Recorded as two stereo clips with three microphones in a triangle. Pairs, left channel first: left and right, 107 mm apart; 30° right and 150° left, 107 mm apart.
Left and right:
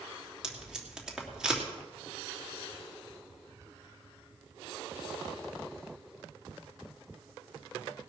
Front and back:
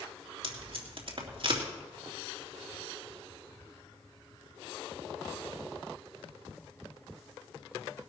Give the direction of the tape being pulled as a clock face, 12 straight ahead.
6 o'clock.